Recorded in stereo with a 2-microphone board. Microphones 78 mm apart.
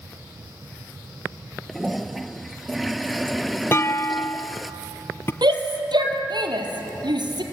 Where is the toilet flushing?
Centre (ahead or behind), 0.8 m.